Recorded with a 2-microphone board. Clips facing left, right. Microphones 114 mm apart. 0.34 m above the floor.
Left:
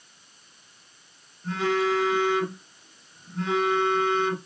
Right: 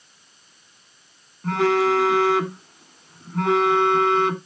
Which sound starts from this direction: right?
A phone buzzing, at 1.4 s.